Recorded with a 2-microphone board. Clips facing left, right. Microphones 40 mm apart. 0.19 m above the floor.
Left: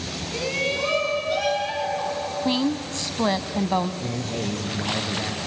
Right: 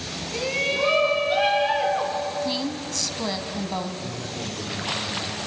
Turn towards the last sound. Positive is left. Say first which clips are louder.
# left 4 dB
turn(degrees=65)  # may be behind; listen again after turning